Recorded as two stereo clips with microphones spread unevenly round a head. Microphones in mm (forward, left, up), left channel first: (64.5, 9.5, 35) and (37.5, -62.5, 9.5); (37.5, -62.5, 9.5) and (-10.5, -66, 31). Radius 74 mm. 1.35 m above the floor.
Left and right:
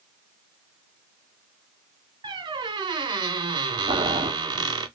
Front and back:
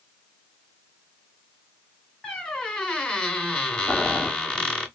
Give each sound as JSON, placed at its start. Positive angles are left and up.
{"t": 2.2, "sound": "a squeak", "azimuth_deg": -85, "distance_m": 1.5}
{"t": 3.9, "sound": "boiling", "azimuth_deg": -100, "distance_m": 1.0}